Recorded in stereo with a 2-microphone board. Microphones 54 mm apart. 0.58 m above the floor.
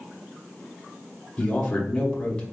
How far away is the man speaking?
About 0.9 m.